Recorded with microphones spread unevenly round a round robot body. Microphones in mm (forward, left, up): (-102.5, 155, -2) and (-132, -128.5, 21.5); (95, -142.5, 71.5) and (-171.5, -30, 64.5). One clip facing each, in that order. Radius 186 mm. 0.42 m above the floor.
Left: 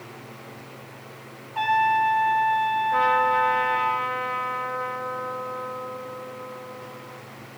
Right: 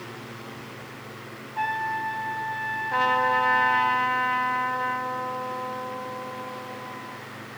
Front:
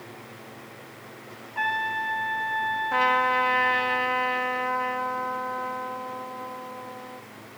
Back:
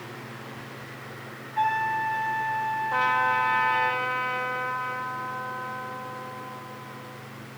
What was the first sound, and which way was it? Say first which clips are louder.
A trumpet: left 8 dB, back 5 dB; 55° left.